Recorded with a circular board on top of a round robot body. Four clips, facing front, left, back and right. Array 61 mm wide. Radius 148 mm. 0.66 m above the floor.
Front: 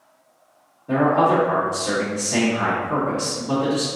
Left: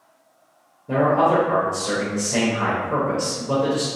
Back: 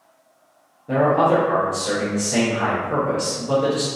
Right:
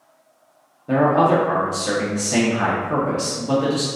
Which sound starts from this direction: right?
A man speaking, at 0.9 s.